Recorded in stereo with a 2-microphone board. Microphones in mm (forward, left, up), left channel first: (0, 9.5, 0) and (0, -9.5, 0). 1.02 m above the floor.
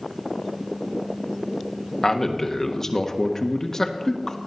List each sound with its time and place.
2.0 s a man speaking: 25° left (ahead or behind), 1.3 m